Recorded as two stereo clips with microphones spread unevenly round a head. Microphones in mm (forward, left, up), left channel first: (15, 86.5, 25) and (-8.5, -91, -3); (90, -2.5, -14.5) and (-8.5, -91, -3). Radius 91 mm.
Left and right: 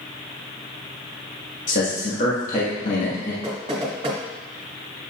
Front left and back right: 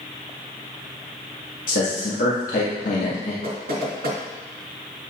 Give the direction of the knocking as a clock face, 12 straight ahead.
5 o'clock.